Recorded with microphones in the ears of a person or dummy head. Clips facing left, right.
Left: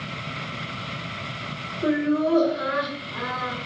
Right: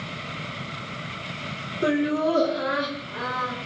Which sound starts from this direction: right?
Laughter, at 1.8 s.